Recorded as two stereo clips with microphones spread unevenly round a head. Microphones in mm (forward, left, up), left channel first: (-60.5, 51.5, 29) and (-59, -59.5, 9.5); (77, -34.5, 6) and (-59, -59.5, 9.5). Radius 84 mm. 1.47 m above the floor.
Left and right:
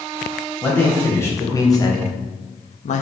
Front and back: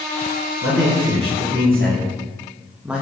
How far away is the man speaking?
About 1.7 m.